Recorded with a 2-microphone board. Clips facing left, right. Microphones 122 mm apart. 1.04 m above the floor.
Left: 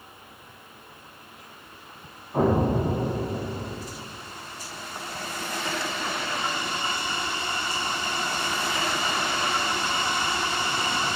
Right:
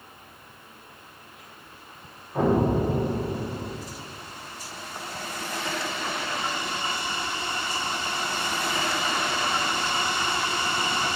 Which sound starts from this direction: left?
An explosion, at 2.3 s.